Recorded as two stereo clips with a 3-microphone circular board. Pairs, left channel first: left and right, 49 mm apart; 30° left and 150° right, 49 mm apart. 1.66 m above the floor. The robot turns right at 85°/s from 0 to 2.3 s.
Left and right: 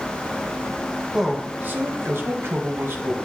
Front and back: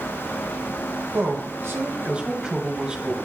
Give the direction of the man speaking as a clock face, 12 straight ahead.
6 o'clock.